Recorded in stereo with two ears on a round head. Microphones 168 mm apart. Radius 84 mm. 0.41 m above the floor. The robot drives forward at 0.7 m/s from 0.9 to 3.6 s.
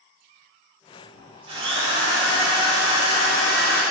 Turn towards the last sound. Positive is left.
turn(degrees=-20)  # may be behind; listen again after turning